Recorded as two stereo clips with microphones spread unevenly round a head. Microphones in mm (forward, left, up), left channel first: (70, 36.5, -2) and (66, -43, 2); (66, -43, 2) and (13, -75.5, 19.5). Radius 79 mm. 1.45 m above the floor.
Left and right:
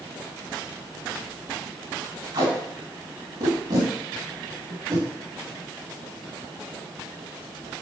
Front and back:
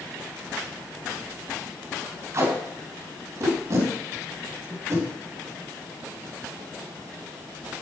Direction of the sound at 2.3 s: 130° right.